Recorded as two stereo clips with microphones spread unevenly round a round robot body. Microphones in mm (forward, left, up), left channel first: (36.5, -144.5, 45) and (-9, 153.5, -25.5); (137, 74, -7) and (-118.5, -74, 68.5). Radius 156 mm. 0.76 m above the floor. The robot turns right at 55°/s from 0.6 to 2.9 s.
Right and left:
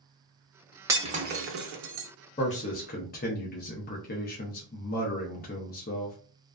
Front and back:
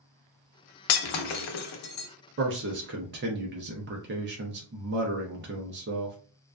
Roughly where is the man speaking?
Behind right.